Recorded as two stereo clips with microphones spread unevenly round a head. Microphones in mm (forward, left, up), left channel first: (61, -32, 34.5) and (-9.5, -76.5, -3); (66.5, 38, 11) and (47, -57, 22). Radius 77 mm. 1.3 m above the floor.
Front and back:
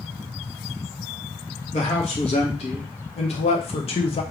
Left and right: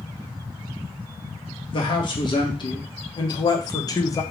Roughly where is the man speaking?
Ahead left.